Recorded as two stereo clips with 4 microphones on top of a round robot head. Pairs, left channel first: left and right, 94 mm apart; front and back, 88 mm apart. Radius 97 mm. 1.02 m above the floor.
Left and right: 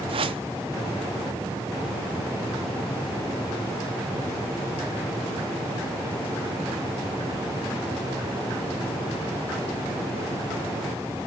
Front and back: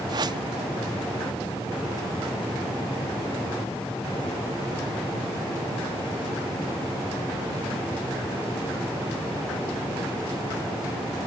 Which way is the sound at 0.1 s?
130° right.